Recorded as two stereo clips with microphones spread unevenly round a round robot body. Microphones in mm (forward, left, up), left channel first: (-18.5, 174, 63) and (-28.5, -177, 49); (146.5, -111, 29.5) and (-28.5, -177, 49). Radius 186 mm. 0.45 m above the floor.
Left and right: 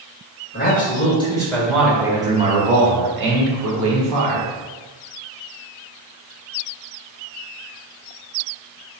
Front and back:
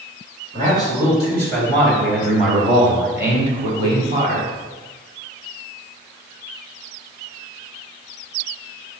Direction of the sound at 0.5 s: 150° left.